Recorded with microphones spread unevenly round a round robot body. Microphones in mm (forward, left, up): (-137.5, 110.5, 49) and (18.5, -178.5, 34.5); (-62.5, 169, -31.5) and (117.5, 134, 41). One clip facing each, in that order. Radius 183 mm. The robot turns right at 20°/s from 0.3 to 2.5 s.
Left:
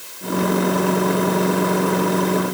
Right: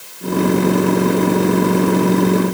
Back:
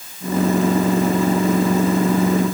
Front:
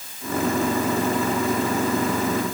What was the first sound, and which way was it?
Only background noise.